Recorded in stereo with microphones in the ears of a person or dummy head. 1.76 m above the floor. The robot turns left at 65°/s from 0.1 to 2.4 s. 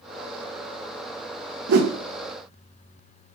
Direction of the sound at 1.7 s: 65° right (ahead or behind).